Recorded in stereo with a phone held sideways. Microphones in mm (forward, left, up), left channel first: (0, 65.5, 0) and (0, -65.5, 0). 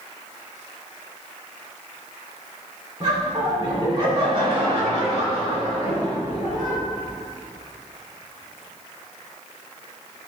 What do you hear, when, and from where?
3.0 s laughter: 45° right (ahead or behind), 3 m; by 6.8 s 50° right (ahead or behind), 5.5 m